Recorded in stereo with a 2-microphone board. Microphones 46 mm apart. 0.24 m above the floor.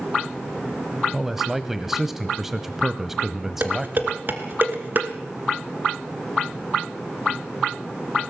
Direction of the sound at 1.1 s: 5° right (ahead or behind).